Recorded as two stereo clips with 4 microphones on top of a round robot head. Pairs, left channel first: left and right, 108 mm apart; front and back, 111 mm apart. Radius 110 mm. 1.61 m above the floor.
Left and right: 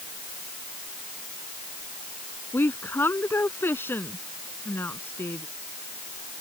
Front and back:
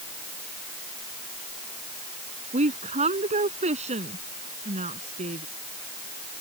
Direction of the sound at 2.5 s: 160° left.